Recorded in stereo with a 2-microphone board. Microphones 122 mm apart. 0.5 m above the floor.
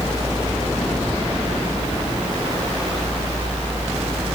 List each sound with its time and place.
Only background noise.